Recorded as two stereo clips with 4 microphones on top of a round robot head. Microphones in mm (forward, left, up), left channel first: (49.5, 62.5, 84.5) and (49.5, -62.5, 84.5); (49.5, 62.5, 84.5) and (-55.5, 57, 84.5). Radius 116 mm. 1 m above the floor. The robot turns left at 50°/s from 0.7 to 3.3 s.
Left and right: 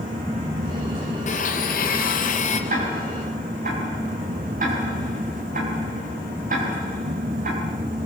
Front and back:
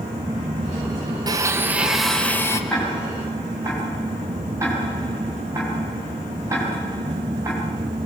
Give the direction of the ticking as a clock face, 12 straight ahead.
3 o'clock.